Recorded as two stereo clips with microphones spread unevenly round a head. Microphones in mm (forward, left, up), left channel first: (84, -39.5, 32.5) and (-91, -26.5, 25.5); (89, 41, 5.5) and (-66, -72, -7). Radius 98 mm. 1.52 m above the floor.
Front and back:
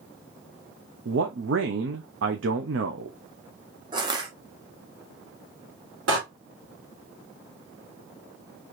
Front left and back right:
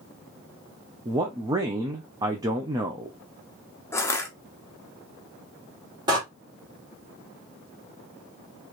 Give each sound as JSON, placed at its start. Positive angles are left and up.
{"t": 1.1, "sound": "a man speaking", "azimuth_deg": 145, "distance_m": 0.7}
{"t": 3.9, "sound": "crushing", "azimuth_deg": 110, "distance_m": 0.8}
{"t": 6.1, "sound": "a door slam", "azimuth_deg": 145, "distance_m": 2.0}